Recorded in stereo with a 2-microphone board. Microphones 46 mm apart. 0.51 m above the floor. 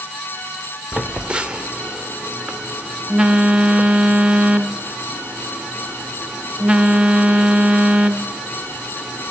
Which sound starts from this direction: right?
A phone buzzing, at 0.9 s.